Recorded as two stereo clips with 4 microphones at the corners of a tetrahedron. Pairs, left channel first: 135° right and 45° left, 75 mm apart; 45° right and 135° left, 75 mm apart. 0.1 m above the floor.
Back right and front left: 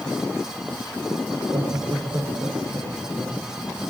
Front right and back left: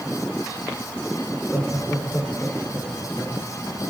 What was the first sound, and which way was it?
Laughter, 30° left.